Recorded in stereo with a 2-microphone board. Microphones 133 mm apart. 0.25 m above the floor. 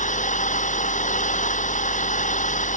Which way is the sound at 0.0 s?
70° left (ahead or behind).